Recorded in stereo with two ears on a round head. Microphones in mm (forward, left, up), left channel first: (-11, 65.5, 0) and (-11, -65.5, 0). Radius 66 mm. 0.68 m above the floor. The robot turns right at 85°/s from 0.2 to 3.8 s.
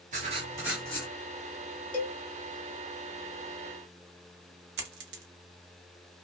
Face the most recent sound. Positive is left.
turn(degrees=-85)